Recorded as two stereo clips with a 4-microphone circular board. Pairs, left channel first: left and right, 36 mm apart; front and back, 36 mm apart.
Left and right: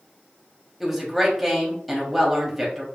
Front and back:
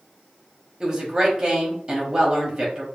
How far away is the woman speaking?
About 0.9 m.